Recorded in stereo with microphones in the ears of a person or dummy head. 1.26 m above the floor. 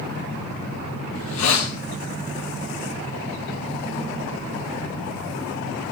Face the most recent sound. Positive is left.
turn(degrees=75)  # may be behind; listen again after turning